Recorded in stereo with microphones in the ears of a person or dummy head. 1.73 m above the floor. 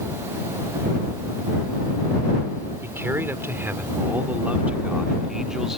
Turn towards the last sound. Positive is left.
turn(degrees=0)  # may be behind; listen again after turning